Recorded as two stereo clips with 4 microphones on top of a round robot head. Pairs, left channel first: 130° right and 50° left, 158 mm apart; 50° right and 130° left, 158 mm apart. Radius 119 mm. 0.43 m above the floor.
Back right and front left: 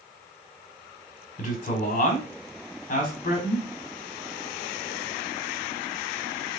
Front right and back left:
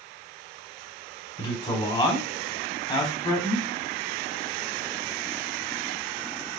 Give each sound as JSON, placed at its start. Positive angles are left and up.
{"t": 1.4, "sound": "a man speaking", "azimuth_deg": -100, "distance_m": 1.4}